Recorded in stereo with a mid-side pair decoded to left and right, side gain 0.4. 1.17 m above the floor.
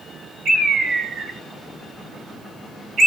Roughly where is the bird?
Right.